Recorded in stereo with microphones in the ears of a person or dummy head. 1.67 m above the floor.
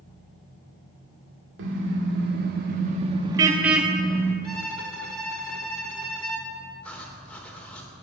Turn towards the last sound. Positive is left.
turn(degrees=5)  # may be behind; listen again after turning